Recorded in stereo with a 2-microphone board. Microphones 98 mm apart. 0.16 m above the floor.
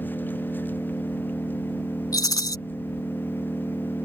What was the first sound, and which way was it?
An engine running, 20° left (ahead or behind).